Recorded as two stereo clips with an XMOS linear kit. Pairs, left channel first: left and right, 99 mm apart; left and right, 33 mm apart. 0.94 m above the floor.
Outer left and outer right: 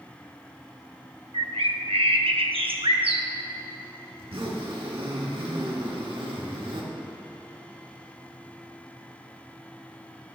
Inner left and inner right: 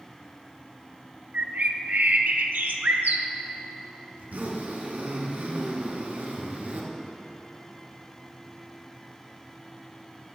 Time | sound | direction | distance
1.3 | a bird | 85° right | 0.5 m
4.2 | a zipper | 70° right (ahead or behind) | 1.1 m